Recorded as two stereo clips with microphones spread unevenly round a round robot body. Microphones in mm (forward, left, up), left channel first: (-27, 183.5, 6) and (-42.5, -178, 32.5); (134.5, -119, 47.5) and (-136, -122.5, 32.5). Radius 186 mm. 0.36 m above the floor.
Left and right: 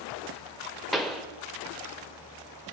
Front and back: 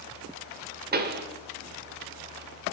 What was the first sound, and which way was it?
A pop, 170° left.